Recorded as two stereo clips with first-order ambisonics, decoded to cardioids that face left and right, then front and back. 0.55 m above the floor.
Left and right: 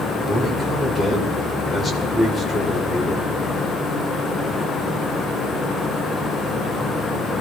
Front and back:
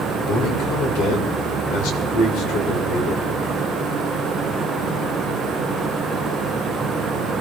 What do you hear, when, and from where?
0.3 s a man speaking: 15° left, 2 m